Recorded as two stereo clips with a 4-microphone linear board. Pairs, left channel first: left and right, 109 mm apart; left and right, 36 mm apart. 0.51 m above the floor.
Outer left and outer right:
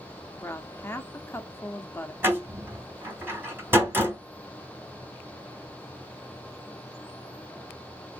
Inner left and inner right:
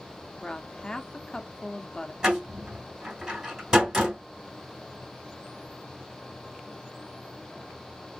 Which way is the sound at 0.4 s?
20° left (ahead or behind).